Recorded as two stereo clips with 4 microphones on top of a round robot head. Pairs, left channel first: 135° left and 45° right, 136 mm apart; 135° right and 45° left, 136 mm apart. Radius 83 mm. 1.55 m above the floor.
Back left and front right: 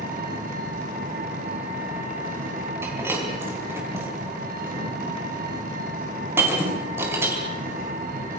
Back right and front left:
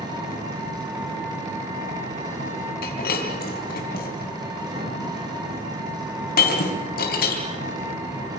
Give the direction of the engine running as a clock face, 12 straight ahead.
1 o'clock.